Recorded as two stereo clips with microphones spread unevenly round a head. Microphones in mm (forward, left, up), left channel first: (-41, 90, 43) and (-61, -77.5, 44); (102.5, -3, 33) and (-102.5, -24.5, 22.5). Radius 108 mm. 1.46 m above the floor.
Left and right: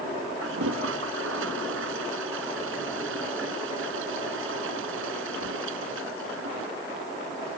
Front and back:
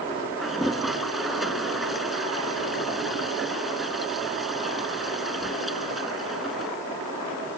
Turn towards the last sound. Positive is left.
turn(degrees=-85)